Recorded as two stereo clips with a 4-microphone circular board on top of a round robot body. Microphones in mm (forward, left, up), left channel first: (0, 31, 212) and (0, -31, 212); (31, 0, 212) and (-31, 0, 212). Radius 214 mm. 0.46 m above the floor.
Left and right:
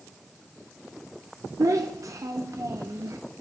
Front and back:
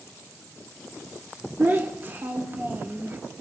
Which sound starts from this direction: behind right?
A child speaking, at 1.6 s.